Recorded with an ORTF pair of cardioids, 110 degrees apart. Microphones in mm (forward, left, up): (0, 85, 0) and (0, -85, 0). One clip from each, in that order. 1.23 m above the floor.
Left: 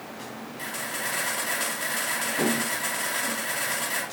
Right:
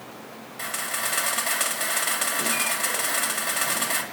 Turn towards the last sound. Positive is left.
turn(degrees=-45)